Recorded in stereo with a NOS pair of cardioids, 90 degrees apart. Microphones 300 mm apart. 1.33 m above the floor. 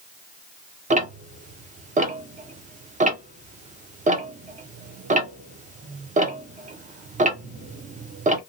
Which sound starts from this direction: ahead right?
Ticking, at 0.9 s.